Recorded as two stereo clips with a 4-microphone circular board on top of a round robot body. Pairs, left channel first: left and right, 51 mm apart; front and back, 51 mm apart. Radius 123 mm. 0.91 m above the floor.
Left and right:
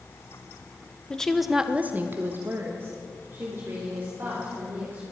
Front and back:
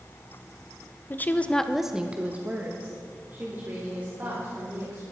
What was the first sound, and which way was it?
A woman speaking, 25° left.